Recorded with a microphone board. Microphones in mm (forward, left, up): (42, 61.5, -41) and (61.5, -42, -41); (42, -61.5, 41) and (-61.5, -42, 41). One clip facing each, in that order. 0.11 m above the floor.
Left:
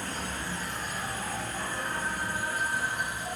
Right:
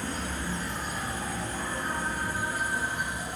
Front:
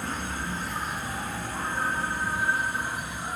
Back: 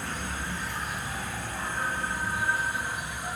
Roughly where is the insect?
Ahead right.